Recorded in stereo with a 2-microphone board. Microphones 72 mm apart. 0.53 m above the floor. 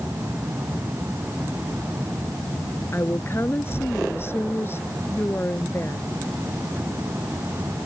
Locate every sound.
2.9 s a woman speaking: 30° left (ahead or behind)